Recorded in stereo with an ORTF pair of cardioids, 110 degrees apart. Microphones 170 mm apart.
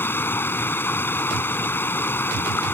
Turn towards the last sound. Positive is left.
turn(degrees=10)